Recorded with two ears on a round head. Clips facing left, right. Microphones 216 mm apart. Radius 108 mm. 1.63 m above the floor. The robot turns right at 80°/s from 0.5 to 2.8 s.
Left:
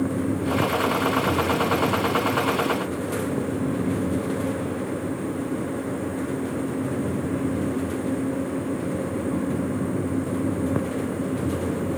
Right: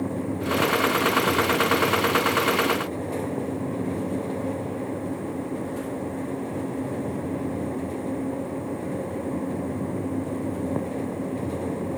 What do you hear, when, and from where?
Only background noise.